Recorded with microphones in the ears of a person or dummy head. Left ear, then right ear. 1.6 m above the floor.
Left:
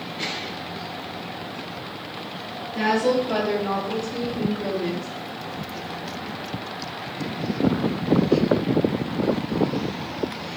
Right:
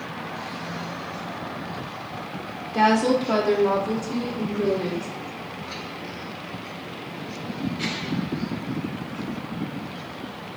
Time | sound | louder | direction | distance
2.7 | a woman speaking | right 2 dB | 65° right (ahead or behind) | 0.6 m